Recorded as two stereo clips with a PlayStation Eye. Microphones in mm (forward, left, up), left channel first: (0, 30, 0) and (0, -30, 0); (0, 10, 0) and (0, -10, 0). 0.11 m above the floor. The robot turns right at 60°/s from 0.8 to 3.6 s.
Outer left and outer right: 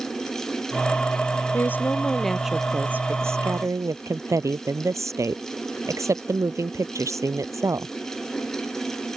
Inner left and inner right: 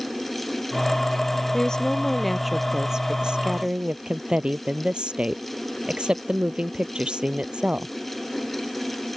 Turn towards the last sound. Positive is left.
turn(degrees=-105)